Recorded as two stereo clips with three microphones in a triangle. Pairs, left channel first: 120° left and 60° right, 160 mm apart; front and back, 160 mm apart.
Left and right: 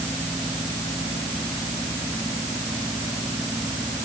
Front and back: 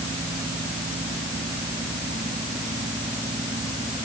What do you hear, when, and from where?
Only background noise.